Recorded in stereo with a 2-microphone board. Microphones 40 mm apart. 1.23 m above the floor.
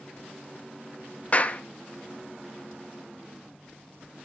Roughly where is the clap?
Left.